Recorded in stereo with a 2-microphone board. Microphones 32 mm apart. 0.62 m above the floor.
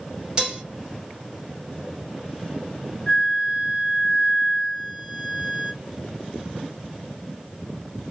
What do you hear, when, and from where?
0.4 s dishes clattering: 25° right (ahead or behind), 1.1 m
3.1 s a flute: centre (ahead or behind), 0.8 m